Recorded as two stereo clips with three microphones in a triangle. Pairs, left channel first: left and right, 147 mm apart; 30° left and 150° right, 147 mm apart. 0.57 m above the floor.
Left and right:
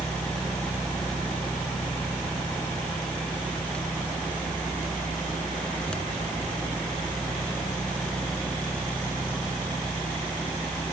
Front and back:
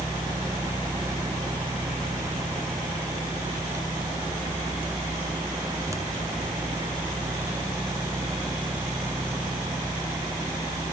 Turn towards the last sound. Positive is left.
No sound to turn to.